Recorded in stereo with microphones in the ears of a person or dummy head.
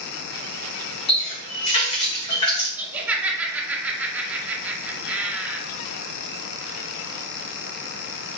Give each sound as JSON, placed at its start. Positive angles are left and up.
{"t": 1.1, "sound": "a running tap", "side_deg": 30, "distance_m": 0.9}
{"t": 2.8, "sound": "laughter", "side_deg": -10, "distance_m": 0.7}